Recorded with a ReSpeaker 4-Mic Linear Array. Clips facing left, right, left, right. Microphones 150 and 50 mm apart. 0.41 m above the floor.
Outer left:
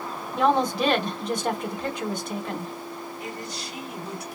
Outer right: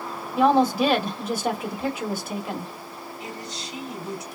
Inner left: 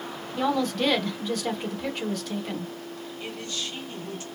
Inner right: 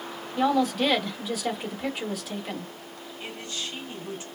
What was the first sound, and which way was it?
A woman speaking, 5° right (ahead or behind).